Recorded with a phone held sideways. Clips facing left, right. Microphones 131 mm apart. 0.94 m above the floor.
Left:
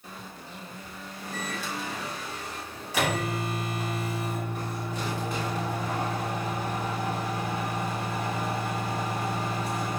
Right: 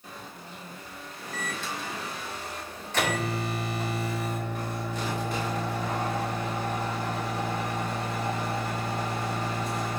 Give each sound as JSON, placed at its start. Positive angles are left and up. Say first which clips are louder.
{"t": 1.3, "sound": "a microwave", "louder": "left 1 dB", "side_deg": 10, "distance_m": 2.0}